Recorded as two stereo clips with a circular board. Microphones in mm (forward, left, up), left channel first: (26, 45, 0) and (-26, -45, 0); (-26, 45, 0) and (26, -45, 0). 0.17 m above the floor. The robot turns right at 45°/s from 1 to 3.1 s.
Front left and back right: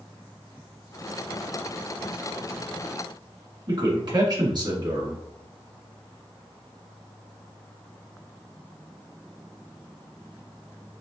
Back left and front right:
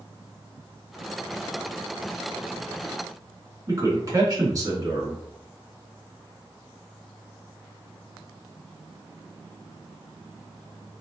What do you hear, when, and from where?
3.7 s a man speaking: 100° right, 1.8 m